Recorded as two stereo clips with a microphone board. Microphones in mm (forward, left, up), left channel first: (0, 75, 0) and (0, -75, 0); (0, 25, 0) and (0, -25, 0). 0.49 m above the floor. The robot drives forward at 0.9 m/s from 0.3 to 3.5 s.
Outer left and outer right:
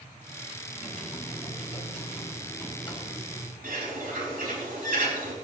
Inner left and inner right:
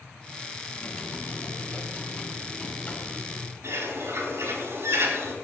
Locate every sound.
0.7 s typing on a keyboard: 50° left (ahead or behind), 4 m; by 3.6 s 30° left (ahead or behind), 6 m
3.6 s a bird: 75° right (ahead or behind), 3.5 m